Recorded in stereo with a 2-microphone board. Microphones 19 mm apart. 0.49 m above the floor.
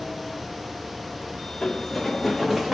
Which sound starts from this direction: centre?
Running footsteps, at 1.6 s.